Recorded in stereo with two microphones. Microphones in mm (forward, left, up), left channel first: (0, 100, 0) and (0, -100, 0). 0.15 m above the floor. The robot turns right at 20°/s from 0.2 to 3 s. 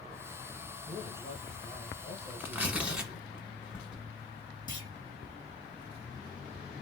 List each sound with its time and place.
0.8 s a man speaking: 50° left, 1.7 m; by 3.3 s 95° left, 1.7 m
2.4 s tearing paper: 10° right (ahead or behind), 0.9 m; by 4.0 s 5° right (ahead or behind), 0.9 m
4.7 s a clunk: 20° left (ahead or behind), 2 m